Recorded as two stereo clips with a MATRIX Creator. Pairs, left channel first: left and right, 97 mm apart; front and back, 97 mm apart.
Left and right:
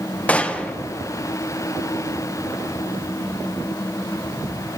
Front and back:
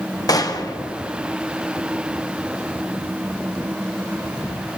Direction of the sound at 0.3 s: 20° left.